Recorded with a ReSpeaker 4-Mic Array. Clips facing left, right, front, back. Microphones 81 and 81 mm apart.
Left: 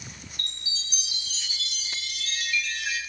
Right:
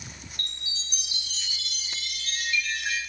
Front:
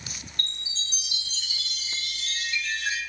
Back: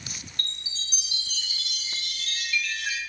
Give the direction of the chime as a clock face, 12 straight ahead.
2 o'clock.